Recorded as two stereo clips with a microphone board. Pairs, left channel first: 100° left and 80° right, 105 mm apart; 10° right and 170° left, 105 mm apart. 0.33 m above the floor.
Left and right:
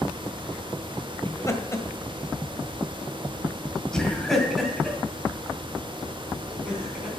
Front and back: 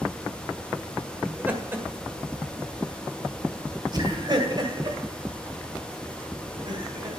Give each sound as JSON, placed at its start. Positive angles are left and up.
{"t": 1.2, "sound": "laughter", "azimuth_deg": 105, "distance_m": 1.6}